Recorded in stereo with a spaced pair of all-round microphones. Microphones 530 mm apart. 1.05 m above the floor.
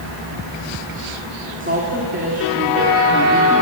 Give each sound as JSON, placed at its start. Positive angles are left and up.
{"t": 1.6, "sound": "a woman speaking", "side_deg": -20, "distance_m": 2.5}